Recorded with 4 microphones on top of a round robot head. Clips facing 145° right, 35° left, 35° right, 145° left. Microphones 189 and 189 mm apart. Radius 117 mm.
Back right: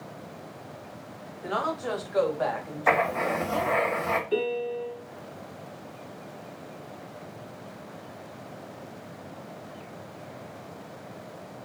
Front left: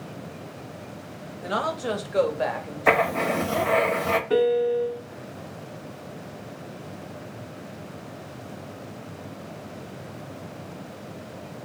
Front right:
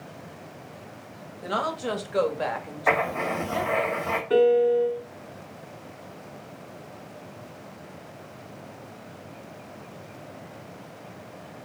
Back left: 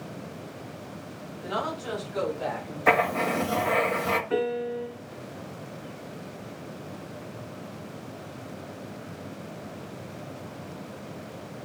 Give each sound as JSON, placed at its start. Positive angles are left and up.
{"t": 1.4, "sound": "a woman speaking", "azimuth_deg": -10, "distance_m": 2.0}
{"t": 2.9, "sound": "writing", "azimuth_deg": 90, "distance_m": 1.3}
{"t": 4.3, "sound": "a piano", "azimuth_deg": 15, "distance_m": 1.9}